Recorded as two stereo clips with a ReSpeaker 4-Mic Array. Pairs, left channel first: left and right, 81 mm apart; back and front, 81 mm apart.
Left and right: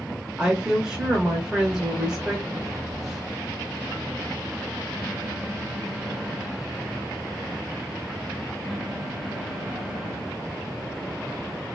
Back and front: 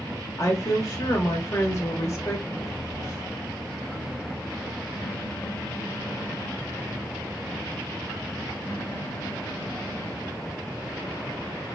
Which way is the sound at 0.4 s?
165° right.